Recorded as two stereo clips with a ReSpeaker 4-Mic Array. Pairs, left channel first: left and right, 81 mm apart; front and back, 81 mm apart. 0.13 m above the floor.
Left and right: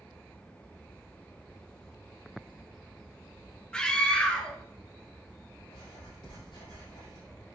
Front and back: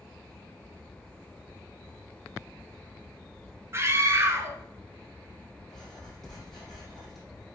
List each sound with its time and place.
3.7 s a scream: 160° left, 1.2 m
5.7 s writing: 90° left, 3.5 m